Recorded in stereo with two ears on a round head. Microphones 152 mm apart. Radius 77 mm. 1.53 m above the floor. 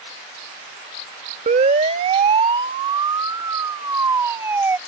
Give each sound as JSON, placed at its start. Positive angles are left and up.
{"t": 1.5, "sound": "a siren", "side_deg": -45}